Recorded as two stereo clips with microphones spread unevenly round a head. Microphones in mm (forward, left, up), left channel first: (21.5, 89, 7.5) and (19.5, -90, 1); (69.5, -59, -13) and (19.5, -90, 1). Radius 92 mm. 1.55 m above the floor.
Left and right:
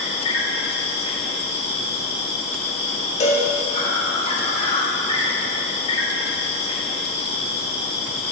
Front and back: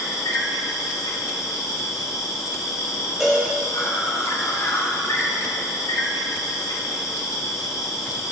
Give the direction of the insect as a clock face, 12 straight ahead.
11 o'clock.